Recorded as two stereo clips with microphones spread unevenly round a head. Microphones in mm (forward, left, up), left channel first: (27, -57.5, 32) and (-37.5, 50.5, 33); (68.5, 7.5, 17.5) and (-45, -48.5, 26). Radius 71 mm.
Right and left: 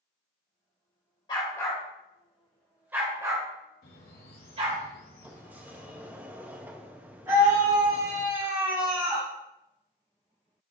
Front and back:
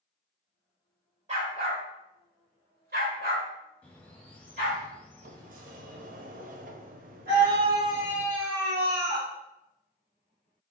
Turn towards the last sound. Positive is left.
turn(degrees=-175)